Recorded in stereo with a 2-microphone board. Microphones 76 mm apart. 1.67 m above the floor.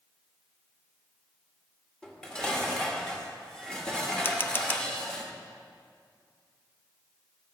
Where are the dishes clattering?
10° left (ahead or behind), 1.8 m.